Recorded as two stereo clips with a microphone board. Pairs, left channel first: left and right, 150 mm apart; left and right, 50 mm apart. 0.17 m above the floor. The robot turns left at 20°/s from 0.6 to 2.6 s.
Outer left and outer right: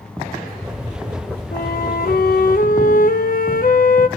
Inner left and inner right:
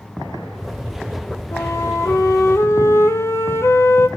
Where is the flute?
85° left, 0.8 m; by 4.1 s 70° left (ahead or behind), 0.8 m.